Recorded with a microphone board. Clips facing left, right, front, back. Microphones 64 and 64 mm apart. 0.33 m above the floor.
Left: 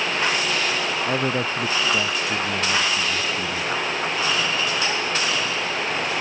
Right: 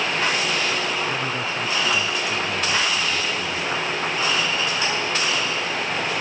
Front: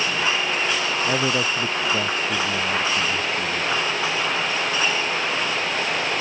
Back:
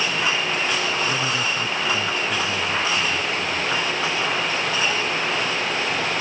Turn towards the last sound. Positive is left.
turn(degrees=40)